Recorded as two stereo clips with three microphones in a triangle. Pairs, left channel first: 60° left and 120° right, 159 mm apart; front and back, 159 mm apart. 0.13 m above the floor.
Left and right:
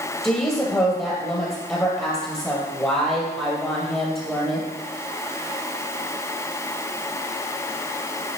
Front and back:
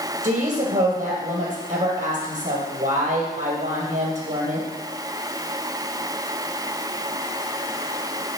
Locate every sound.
0.2 s a woman speaking: 140° left, 2.5 m